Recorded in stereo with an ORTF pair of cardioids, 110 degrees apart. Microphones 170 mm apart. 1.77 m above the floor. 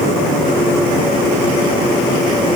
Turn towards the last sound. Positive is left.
No sound to turn to.